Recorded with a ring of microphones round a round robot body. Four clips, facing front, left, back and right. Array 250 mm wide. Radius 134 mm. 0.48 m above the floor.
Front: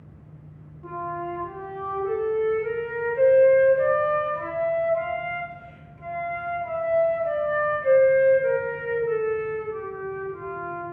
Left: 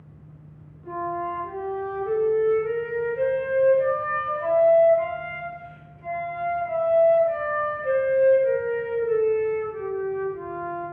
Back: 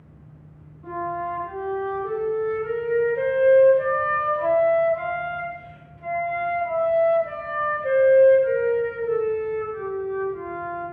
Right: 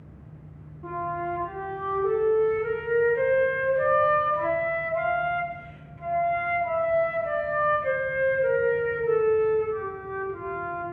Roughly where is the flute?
Right.